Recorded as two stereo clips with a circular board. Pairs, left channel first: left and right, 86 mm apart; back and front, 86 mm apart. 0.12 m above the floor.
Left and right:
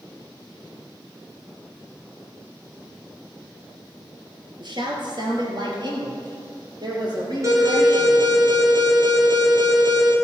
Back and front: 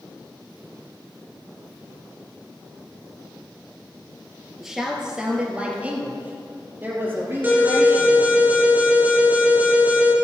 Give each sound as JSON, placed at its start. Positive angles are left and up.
{"t": 4.6, "sound": "a woman speaking", "azimuth_deg": -90, "distance_m": 3.0}
{"t": 7.4, "sound": "an alarm", "azimuth_deg": -60, "distance_m": 3.5}